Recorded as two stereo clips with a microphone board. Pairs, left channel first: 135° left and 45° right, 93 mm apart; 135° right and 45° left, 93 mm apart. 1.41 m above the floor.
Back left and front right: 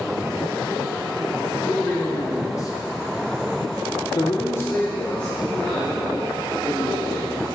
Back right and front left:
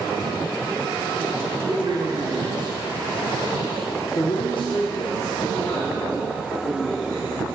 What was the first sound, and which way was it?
A man speaking, 70° left.